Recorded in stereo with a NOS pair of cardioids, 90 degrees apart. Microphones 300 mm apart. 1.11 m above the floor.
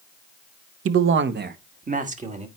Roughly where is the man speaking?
Ahead right.